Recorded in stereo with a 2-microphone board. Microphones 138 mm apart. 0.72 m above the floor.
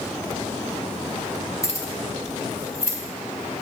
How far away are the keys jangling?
About 1.2 m.